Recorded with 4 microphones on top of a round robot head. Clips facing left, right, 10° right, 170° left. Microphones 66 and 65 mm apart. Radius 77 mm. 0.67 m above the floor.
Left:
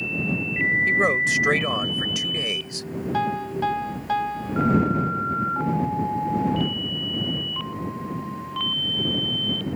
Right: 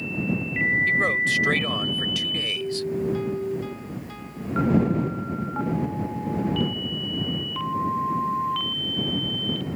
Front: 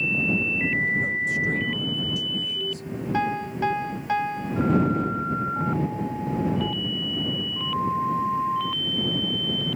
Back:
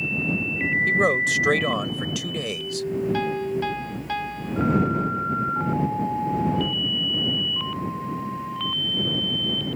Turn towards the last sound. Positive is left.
turn(degrees=60)